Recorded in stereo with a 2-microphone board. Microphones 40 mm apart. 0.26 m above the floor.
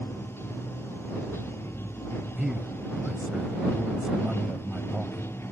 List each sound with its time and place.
0.0 s running water: 85° left
2.4 s a man speaking: 20° right (ahead or behind)